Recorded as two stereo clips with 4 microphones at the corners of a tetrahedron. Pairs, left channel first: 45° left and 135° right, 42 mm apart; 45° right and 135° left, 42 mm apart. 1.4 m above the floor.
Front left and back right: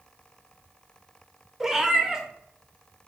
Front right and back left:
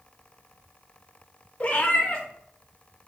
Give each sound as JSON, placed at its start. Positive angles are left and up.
{"t": 1.6, "sound": "a cat meowing", "azimuth_deg": -70, "distance_m": 0.7}